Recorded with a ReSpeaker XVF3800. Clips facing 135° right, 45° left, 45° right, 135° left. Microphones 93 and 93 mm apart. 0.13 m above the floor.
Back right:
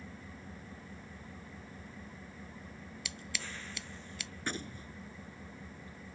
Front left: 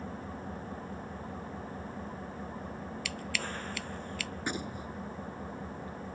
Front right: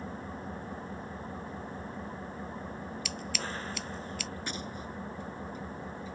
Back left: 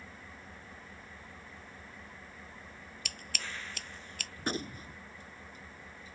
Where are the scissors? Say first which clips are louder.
Front left 5 dB, front right 3 dB; 160° left.